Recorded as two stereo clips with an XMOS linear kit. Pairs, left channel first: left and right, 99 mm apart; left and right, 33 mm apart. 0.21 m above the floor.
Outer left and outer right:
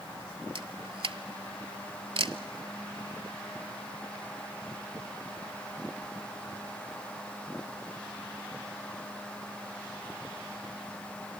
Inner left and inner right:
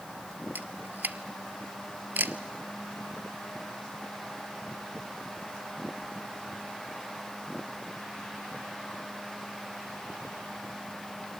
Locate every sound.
0.6 s a camera shutter: 85° right, 0.7 m